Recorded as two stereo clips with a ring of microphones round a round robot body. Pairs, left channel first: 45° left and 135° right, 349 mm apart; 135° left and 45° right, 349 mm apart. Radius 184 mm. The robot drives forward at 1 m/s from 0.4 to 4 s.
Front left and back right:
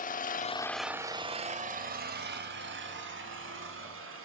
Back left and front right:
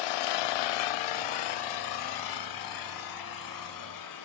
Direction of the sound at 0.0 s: 115° left.